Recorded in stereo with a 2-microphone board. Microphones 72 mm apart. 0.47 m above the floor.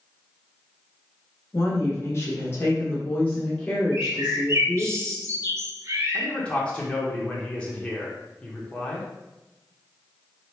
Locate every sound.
1.5 s a woman speaking: 40° left (ahead or behind), 1.7 m; by 4.9 s 5° right (ahead or behind), 1.8 m
3.9 s a bird: 40° right (ahead or behind), 1.1 m
6.1 s a man speaking: 15° left (ahead or behind), 0.9 m